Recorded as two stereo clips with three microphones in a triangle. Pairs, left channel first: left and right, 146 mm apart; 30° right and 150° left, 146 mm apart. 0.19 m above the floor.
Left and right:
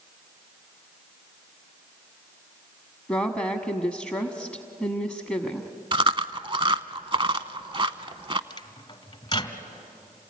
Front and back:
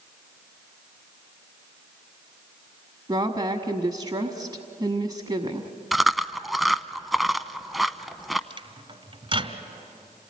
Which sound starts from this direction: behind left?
A microwave, at 8.5 s.